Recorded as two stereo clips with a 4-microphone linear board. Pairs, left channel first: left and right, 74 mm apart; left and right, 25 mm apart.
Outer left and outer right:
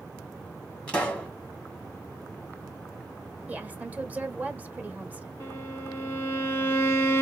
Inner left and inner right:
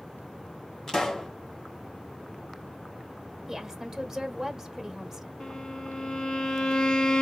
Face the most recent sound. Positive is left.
turn(degrees=35)  # may be behind; listen again after turning